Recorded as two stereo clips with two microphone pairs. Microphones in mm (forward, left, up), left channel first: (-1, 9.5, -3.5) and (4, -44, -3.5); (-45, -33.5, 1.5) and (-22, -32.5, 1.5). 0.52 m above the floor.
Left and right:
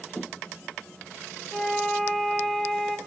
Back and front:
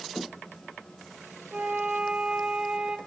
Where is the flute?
15° left, 1.0 m.